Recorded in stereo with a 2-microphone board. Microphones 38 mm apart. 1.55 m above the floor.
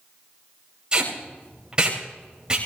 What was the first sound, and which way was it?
Tape being pulled, 20° right (ahead or behind).